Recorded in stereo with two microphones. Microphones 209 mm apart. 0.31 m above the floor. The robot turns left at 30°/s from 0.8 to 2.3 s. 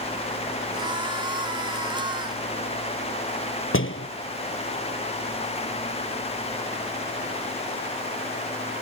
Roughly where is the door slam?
Left.